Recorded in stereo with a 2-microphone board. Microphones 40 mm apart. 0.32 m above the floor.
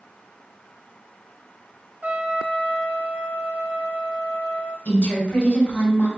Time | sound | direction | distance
2.0 | a trumpet | 40° right (ahead or behind) | 0.7 m
4.8 | a woman speaking | 40° left (ahead or behind) | 1.4 m